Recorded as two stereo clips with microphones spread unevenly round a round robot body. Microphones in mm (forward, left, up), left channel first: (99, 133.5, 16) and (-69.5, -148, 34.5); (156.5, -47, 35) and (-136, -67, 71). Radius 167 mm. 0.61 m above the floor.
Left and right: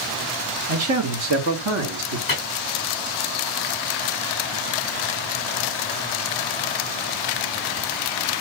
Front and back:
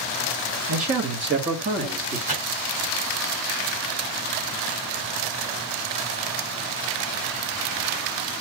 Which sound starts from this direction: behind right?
A man speaking, at 0.7 s.